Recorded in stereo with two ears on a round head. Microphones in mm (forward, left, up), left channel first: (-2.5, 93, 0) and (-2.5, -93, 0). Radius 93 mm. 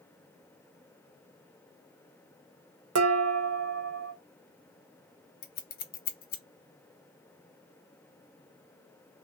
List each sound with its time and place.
3.0 s dishes clattering: 80° right, 0.7 m
5.4 s scissors: 45° left (ahead or behind), 0.6 m